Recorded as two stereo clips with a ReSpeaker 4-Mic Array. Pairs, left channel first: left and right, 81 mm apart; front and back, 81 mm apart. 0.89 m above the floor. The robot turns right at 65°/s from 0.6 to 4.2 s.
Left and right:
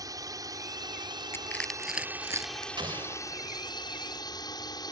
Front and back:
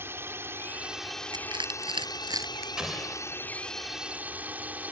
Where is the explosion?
100° right; by 3.5 s 50° right.